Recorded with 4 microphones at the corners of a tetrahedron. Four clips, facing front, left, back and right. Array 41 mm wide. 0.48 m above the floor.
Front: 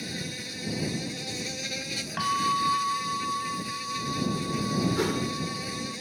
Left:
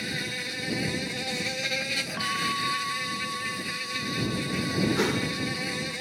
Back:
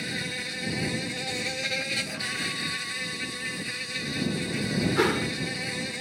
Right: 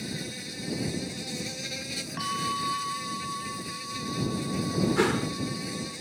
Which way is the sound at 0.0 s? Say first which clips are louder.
Left 5 dB, back 4 dB; 125° left.